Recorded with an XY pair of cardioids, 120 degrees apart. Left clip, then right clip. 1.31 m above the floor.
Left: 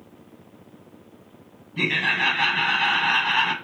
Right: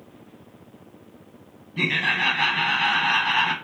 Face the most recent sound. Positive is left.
turn(degrees=0)